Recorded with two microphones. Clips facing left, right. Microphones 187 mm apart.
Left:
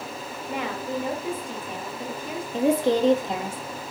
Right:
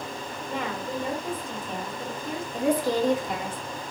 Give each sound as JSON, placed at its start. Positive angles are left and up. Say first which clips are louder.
{"t": 0.5, "sound": "a woman speaking", "louder": "left 2 dB", "side_deg": 10, "distance_m": 1.1}
{"t": 2.5, "sound": "a woman speaking", "louder": "left 3 dB", "side_deg": 25, "distance_m": 0.6}